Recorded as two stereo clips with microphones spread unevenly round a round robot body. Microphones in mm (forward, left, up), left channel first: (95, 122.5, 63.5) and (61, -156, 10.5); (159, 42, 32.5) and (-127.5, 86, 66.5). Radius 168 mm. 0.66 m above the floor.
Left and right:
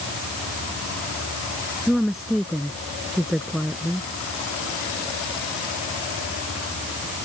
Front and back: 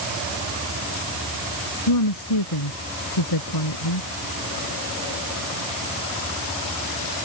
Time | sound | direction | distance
1.9 | a woman speaking | 5° right | ?